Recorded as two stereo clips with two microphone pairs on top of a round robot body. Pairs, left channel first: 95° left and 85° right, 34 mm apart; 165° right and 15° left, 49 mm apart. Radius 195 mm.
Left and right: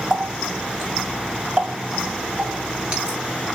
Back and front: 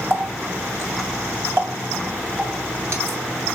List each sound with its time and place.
0.1 s a running tap: 25° right, 2 m